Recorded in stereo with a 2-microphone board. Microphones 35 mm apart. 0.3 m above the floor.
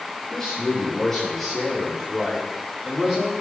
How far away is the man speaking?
About 7 m.